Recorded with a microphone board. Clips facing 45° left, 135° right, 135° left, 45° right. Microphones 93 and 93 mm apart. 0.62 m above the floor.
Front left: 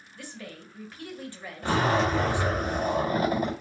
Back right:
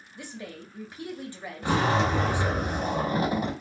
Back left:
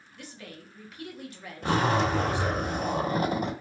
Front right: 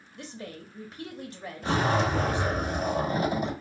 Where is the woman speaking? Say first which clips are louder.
Back right 2 dB, front right 4 dB; 70° right, 1.0 m.